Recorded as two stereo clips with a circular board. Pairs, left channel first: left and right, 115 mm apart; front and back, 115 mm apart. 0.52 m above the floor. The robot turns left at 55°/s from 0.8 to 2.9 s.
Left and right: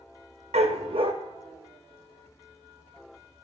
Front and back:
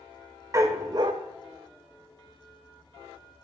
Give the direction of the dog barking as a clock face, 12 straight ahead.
4 o'clock.